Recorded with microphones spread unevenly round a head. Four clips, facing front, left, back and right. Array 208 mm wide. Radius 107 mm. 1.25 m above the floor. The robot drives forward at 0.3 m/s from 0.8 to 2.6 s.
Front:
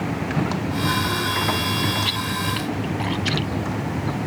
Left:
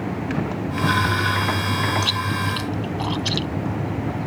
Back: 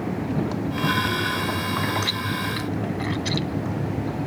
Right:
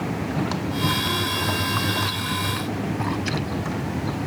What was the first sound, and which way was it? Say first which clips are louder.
Chewing: left 2 dB, front 1 dB; 110° left.